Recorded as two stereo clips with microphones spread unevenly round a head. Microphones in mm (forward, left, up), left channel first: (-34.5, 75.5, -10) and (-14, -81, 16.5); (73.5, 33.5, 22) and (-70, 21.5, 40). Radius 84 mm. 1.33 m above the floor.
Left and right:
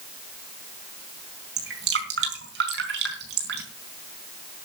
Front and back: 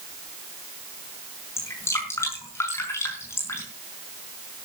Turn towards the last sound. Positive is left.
turn(degrees=-75)